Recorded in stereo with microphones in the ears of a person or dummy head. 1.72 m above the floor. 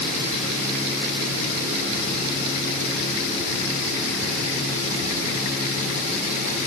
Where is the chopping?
I don't hear chopping.